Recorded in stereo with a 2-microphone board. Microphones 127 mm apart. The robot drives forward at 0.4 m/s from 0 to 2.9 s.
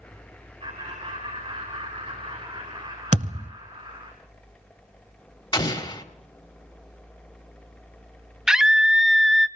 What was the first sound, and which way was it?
Laughter, 50° right (ahead or behind).